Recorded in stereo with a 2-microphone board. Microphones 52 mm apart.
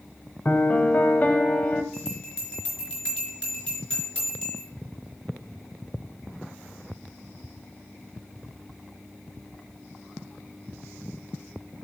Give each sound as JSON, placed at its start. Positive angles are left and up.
{"t": 0.5, "sound": "a piano", "side_deg": 35, "distance_m": 0.7}
{"t": 1.9, "sound": "a bell", "side_deg": 20, "distance_m": 4.5}